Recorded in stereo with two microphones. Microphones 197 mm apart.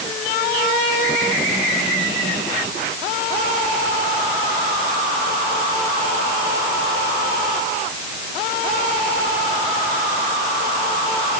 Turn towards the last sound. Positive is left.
No sound to turn to.